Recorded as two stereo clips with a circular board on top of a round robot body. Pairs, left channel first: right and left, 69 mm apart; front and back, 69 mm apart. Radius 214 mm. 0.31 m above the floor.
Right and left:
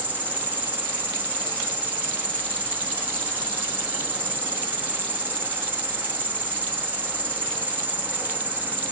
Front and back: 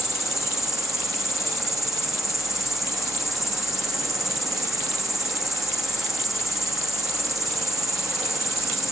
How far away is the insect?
About 1.4 m.